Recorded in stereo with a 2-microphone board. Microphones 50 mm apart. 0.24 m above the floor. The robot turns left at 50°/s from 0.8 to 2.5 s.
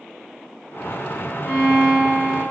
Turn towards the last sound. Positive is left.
turn(degrees=45)